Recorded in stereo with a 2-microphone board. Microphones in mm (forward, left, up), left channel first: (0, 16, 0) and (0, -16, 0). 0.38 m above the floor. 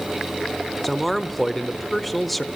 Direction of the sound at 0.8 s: 5° left (ahead or behind).